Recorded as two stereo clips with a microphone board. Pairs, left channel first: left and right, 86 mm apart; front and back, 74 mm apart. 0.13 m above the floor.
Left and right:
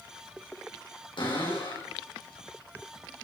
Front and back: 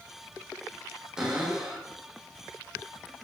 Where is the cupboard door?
100° left, 6.5 m.